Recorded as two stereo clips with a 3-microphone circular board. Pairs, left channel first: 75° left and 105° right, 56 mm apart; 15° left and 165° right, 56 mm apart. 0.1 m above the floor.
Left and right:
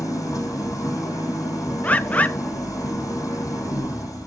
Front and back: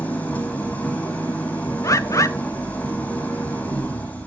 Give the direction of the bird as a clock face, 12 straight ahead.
12 o'clock.